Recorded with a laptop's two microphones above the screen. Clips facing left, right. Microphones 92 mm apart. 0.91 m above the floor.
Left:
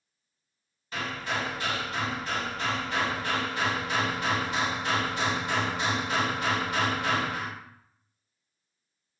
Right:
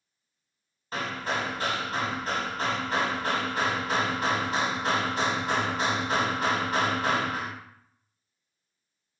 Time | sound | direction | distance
0.9 | hammering | 40° right (ahead or behind) | 0.9 m